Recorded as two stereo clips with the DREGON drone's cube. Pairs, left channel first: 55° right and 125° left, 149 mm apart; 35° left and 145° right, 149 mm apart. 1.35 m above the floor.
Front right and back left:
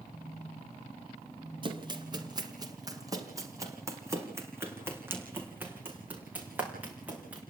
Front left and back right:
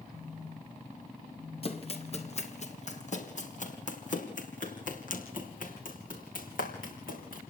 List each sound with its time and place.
0.1 s a phone buzzing: 65° left, 5 m
1.6 s running footsteps: 75° left, 2.5 m; by 7.4 s 45° left, 5.5 m